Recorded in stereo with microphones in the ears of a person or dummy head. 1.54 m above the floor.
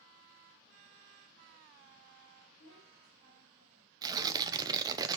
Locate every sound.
2.6 s a child speaking: 75° left (ahead or behind), 3.5 m
4.0 s tearing paper: 20° right (ahead or behind), 0.5 m